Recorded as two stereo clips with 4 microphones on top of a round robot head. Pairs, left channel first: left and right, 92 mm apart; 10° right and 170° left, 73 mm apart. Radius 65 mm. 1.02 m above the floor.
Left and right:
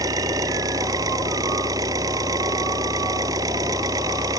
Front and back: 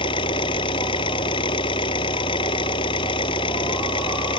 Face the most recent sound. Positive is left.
turn(degrees=-30)